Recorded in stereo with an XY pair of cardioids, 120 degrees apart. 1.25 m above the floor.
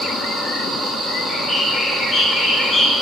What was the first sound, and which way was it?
A bird, 20° left.